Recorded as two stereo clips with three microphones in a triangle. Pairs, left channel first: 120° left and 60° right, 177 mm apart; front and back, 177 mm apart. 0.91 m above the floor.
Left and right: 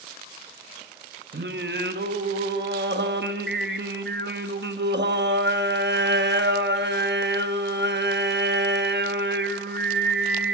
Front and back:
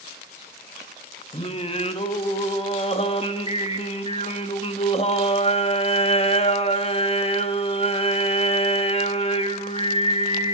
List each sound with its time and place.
1.3 s singing: 60° right, 0.8 m